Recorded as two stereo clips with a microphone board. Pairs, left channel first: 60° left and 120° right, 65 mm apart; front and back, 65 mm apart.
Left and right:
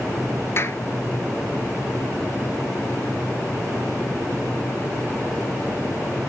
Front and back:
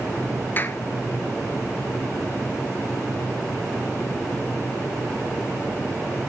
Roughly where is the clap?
Ahead left.